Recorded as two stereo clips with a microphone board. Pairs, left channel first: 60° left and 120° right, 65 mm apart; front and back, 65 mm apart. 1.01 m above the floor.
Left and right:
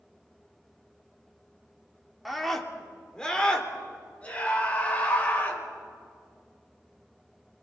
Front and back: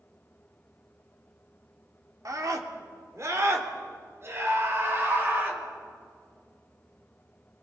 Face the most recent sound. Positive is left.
turn(degrees=125)